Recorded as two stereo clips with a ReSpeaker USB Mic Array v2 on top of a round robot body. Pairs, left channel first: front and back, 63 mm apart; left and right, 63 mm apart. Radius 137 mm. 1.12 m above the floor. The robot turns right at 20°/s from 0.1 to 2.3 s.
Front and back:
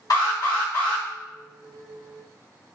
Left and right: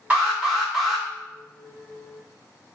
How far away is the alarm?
About 1.1 m.